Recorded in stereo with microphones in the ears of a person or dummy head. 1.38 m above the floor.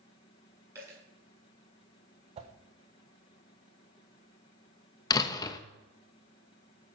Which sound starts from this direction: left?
A door slam, at 5.1 s.